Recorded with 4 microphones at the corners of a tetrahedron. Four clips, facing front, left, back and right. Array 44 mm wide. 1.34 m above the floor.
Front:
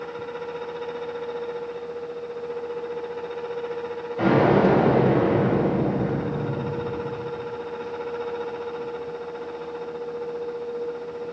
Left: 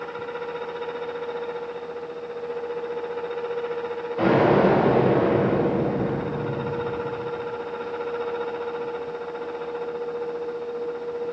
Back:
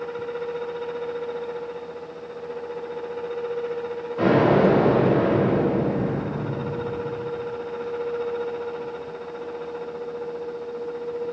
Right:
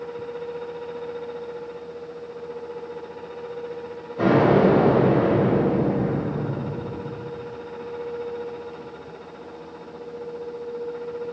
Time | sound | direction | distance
4.2 | an explosion | 125° left | 1.9 m